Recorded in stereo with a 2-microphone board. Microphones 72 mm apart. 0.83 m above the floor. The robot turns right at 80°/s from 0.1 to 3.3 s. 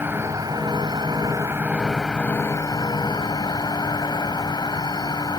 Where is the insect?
150° right; by 5.4 s 105° left.